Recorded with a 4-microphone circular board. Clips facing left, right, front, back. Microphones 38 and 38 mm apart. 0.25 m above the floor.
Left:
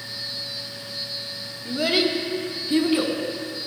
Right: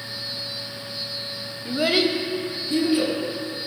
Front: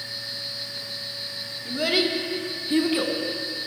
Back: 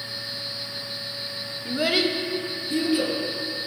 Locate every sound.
1.6 s a child speaking: 135° right, 0.6 m; by 3.1 s 45° left, 1.3 m